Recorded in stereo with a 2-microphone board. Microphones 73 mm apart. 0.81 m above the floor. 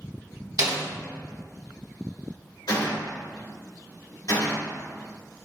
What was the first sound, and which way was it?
A snare drum, 50° right (ahead or behind).